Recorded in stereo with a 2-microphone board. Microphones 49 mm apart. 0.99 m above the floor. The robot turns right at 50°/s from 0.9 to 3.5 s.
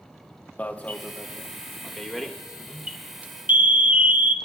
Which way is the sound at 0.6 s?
30° left (ahead or behind).